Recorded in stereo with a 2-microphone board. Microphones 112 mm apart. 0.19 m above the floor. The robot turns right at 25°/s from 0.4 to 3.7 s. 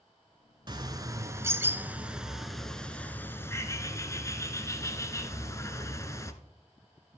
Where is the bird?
45° right, 0.9 m; by 6.3 s 30° left, 0.9 m.